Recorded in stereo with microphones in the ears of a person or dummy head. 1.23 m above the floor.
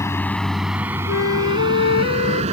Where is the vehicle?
15° left (ahead or behind); by 2.5 s 35° right (ahead or behind).